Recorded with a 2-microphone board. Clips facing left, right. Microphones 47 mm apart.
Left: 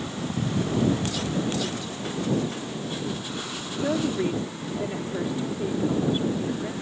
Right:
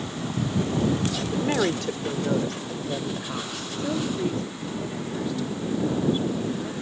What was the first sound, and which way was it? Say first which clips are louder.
A woman speaking: right 4 dB; 65° right (ahead or behind).